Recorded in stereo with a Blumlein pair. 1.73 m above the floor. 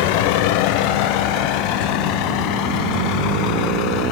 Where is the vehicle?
45° left; by 4.1 s 40° left.